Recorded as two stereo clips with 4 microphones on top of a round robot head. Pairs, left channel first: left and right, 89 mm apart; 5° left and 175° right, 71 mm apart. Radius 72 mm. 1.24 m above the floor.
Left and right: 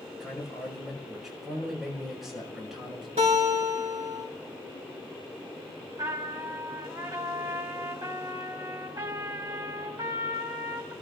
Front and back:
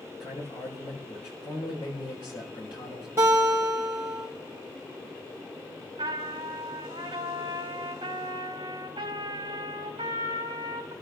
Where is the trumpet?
145° right, 4.5 m.